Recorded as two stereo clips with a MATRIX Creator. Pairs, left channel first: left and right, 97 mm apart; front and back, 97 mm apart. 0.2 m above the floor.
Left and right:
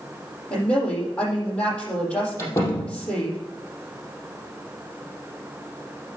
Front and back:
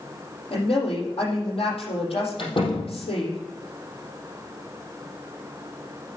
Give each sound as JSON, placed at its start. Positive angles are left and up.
{"t": 0.5, "sound": "a woman speaking", "azimuth_deg": 15, "distance_m": 6.0}
{"t": 2.4, "sound": "a door slam", "azimuth_deg": 30, "distance_m": 4.0}